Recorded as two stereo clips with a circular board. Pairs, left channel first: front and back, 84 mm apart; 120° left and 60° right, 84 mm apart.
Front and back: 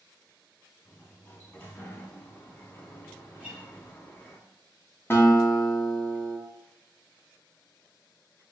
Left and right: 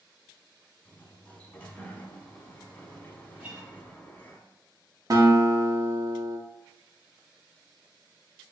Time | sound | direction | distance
0.8 | a sliding door | 60° left | 0.6 m
3.4 | a guitar | 115° right | 0.9 m
5.1 | a guitar | 55° right | 0.6 m